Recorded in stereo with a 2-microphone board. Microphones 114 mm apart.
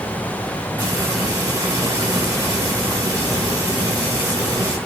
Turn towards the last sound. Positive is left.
turn(degrees=-30)  # may be behind; listen again after turning